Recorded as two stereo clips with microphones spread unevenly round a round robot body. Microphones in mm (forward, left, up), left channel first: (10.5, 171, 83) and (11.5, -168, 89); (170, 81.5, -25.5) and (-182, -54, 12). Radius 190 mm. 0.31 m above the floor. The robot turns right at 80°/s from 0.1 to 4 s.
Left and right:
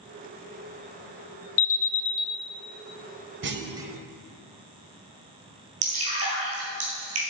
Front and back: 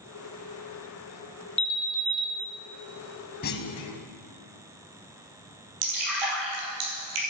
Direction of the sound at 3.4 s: 40° right.